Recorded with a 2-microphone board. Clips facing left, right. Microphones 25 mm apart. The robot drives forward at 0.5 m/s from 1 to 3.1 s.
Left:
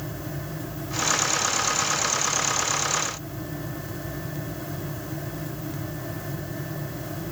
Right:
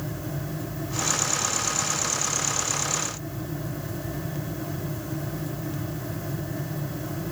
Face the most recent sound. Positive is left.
No sound to turn to.